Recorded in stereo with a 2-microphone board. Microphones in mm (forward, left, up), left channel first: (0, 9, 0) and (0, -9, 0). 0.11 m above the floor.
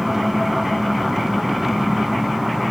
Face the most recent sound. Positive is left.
turn(degrees=-30)  # may be behind; listen again after turning